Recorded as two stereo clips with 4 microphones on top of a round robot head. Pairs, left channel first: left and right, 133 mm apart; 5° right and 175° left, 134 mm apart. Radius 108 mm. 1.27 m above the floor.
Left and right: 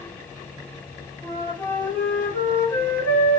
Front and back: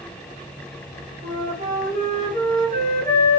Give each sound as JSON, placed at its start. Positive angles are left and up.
{"t": 1.2, "sound": "a flute", "azimuth_deg": 165, "distance_m": 2.0}